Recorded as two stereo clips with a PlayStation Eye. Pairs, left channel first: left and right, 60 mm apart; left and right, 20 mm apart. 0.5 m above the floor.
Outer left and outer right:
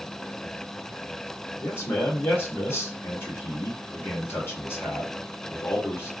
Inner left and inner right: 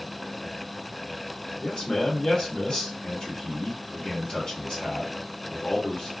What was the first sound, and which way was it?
A man speaking, 45° left (ahead or behind).